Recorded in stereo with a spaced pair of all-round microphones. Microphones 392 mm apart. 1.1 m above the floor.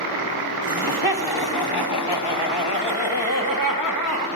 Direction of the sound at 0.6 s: 60° left (ahead or behind).